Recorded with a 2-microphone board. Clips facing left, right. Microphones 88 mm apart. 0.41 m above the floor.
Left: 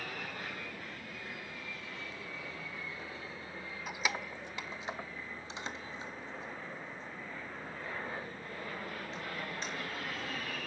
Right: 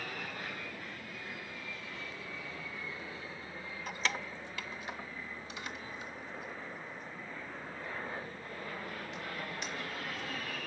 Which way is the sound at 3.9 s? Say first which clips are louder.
Even; 5° left (ahead or behind).